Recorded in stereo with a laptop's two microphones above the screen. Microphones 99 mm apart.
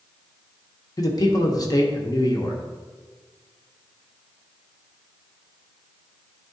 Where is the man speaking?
40° left (ahead or behind), 1.1 m.